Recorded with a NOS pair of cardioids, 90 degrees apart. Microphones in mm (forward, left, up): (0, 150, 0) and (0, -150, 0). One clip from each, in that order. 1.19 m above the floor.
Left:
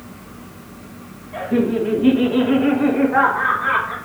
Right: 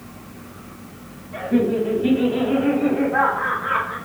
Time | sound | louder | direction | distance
1.3 | laughter | left 1 dB | 10° left | 2.5 m